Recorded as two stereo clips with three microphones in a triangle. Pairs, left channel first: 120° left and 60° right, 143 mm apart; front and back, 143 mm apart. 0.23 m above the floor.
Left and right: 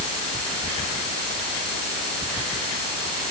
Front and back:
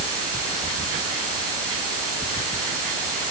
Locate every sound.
Only background noise.